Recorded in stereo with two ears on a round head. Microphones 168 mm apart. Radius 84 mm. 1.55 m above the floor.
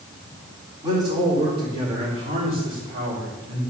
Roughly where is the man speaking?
Right.